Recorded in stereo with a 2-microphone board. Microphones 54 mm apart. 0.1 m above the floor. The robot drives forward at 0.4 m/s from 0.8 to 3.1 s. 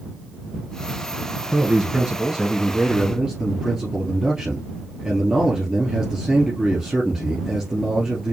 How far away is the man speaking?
About 1.2 m.